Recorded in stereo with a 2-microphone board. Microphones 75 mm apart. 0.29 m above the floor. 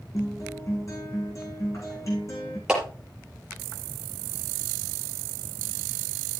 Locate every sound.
0.1 s a guitar: 45° left (ahead or behind), 5.5 m
2.7 s a clap: 10° right (ahead or behind), 5 m